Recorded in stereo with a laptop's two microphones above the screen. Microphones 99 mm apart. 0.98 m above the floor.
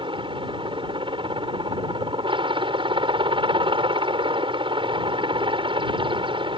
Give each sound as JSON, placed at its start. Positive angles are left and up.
{"t": 0.0, "sound": "a helicopter", "side_deg": -55}